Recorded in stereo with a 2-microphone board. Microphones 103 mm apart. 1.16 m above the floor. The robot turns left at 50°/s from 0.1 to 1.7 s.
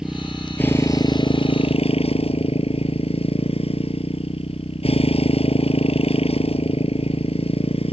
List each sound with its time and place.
0.0 s a motorcycle: 175° right; by 7.9 s 105° left